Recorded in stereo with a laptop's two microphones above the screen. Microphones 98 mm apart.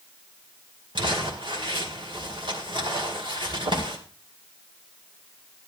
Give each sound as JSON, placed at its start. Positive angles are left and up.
{"t": 0.9, "sound": "crumpling", "side_deg": -55, "distance_m": 2.0}